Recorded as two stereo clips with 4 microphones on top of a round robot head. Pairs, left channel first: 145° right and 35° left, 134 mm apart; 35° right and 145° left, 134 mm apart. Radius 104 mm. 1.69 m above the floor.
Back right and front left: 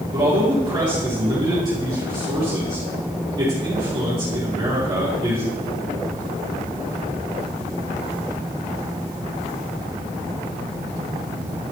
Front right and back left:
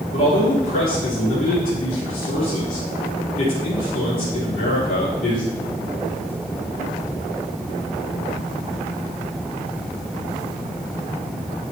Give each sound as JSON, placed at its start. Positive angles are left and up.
{"t": 0.1, "sound": "a man speaking", "azimuth_deg": -20, "distance_m": 4.0}